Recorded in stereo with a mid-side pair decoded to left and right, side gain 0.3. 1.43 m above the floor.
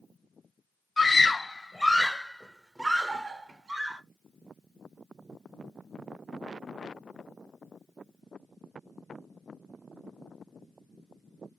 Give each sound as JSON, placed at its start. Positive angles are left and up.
{"t": 1.0, "sound": "a scream", "azimuth_deg": 45, "distance_m": 1.1}